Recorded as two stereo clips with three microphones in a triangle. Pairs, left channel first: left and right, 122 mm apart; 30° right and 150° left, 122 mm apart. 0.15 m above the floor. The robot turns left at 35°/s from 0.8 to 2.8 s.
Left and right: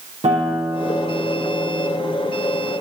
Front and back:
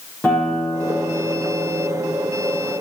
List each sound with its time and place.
0.2 s a guitar: 110° right, 3.5 m; by 2.2 s 155° right, 3.5 m